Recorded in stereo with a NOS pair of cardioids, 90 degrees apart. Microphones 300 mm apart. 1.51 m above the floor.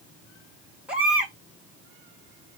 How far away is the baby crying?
About 1.8 m.